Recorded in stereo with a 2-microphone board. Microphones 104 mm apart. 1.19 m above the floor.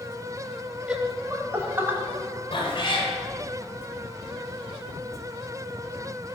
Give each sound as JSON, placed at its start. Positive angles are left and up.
{"t": 0.9, "sound": "laughter", "side_deg": -10, "distance_m": 1.5}
{"t": 2.5, "sound": "a cat meowing", "side_deg": 55, "distance_m": 2.0}